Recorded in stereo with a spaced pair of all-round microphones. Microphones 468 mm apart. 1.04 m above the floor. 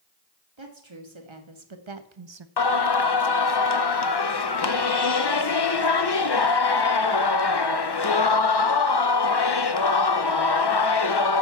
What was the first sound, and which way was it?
A woman speaking, 75° right (ahead or behind).